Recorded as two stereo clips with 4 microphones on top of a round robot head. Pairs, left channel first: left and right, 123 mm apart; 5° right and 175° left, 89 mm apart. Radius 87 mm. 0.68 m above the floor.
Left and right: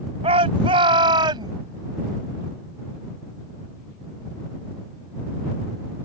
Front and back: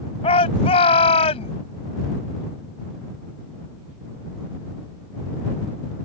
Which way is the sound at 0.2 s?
35° right.